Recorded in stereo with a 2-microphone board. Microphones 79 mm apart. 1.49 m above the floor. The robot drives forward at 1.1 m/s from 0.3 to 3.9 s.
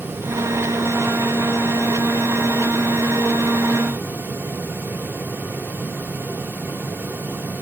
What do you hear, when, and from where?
Only background noise.